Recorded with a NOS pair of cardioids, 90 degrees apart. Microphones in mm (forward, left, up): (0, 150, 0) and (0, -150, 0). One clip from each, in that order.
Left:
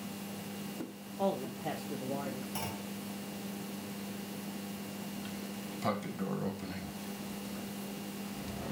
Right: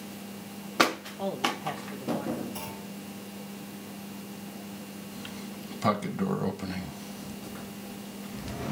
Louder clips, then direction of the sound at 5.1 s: Right 2 dB; 35° right.